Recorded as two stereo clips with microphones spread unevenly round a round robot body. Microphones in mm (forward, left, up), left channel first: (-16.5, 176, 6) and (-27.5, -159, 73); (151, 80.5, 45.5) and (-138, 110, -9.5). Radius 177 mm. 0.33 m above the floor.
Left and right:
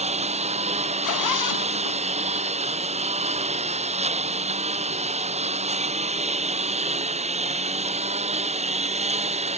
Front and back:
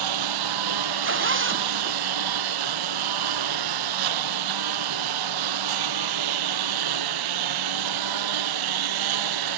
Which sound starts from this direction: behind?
A lawn mower, at 0.0 s.